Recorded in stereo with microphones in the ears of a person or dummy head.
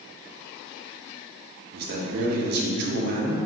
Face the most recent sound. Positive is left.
turn(degrees=-65)  # may be behind; listen again after turning